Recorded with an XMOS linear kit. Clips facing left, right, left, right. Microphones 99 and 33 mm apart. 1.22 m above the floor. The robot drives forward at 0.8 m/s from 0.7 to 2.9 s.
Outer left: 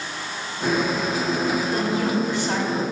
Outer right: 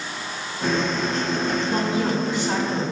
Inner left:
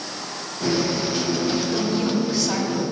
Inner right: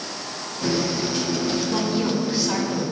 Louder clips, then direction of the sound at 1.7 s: Even, even; 30° right (ahead or behind).